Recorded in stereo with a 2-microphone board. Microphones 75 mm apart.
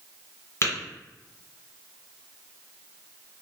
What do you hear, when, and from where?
0.6 s tapping: 40° left (ahead or behind), 1.8 m